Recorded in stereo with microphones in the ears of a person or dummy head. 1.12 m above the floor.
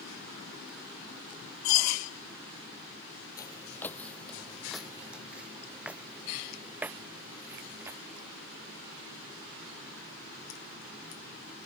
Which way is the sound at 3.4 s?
15° left (ahead or behind).